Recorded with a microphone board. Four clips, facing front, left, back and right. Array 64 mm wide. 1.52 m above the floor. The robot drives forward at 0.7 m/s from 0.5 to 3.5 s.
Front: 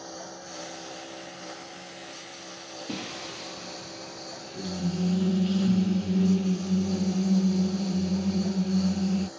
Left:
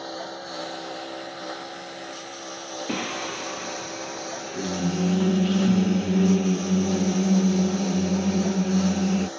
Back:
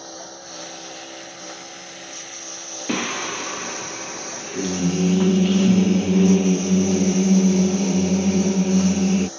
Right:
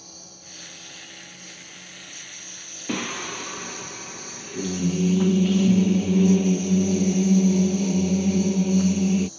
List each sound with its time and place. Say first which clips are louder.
0.0 s a lawn mower: left 16 dB, back 3 dB; 100° left; by 9.4 s 110° left
2.9 s singing: right 1 dB, back 13 dB; straight behind